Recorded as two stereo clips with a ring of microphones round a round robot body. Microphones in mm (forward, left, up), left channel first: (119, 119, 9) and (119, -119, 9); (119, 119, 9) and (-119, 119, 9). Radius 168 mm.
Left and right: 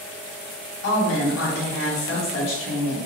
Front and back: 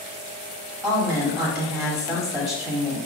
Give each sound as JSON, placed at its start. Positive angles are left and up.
{"t": 0.8, "sound": "a woman speaking", "azimuth_deg": 105, "distance_m": 2.0}